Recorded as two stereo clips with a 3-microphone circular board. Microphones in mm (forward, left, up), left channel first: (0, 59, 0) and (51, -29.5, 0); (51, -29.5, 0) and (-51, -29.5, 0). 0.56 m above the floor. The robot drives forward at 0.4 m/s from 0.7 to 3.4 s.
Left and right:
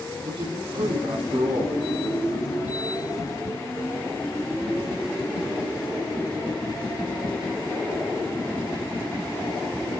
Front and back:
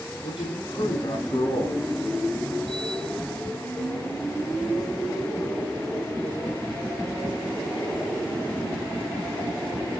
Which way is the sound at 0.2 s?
30° right.